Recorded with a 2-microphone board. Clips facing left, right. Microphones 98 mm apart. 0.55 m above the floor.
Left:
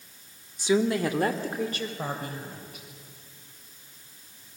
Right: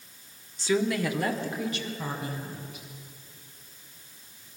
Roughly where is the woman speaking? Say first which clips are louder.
Left 2 dB; centre.